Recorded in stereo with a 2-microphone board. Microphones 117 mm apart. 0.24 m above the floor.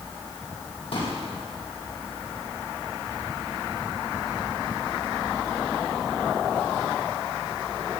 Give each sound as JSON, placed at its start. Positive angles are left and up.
{"t": 0.9, "sound": "a pop", "side_deg": 65, "distance_m": 5.0}